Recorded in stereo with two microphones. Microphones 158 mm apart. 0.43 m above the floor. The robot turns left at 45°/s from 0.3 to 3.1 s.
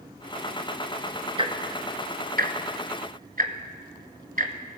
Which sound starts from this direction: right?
Ticking, at 1.4 s.